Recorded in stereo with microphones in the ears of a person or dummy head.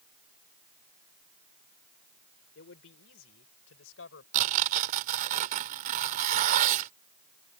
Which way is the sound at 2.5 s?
85° left.